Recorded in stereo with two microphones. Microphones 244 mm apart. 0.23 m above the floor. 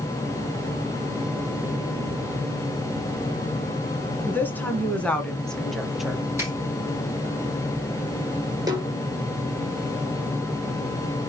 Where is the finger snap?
10° right (ahead or behind), 6.5 m.